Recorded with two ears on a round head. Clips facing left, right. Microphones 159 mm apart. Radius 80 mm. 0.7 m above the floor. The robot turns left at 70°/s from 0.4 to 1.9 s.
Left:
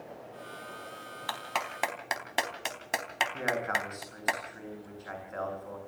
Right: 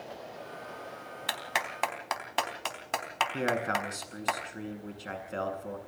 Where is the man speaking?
40° right (ahead or behind), 8 m.